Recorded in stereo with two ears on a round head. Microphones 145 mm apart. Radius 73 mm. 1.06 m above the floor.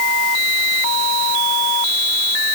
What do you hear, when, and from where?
Only background noise.